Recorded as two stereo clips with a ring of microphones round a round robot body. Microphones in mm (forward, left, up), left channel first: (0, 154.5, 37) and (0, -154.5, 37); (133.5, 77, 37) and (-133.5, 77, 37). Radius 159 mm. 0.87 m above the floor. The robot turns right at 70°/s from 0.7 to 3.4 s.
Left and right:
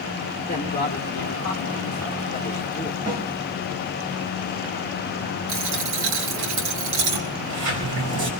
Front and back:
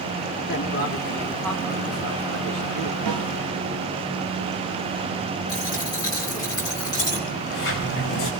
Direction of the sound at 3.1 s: 160° right.